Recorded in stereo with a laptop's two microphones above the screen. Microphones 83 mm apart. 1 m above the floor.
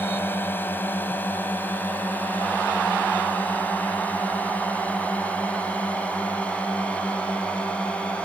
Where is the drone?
25° left (ahead or behind); by 8.2 s 15° left (ahead or behind).